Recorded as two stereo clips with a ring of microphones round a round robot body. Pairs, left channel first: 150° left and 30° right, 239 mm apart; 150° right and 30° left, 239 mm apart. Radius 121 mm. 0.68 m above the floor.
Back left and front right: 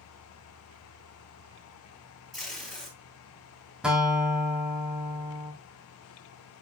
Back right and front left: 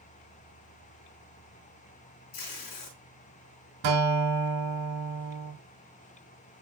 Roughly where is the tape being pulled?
Behind right.